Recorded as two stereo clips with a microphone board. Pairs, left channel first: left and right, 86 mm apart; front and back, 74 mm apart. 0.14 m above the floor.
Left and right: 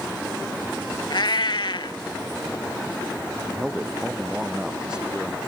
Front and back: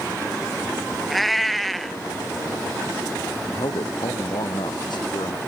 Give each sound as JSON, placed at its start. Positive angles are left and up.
{"t": 1.1, "sound": "a cat meowing", "azimuth_deg": 85}
{"t": 3.5, "sound": "a man speaking", "azimuth_deg": -10}